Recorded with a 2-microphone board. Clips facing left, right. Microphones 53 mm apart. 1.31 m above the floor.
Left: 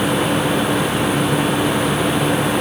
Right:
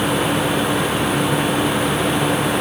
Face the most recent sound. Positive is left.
No sound to turn to.